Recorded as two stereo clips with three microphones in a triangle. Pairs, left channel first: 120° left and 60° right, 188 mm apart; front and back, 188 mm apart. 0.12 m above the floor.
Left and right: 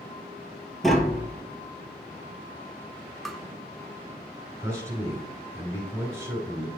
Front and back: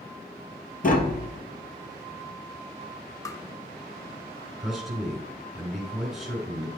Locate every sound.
0.8 s tapping: 30° left, 1.0 m
3.2 s tapping: 35° left, 0.6 m
4.6 s a man speaking: 90° right, 1.6 m